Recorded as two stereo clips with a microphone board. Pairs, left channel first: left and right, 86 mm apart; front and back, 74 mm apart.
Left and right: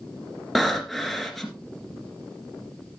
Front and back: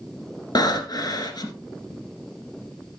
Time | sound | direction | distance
0.6 | breathing | straight ahead | 2 m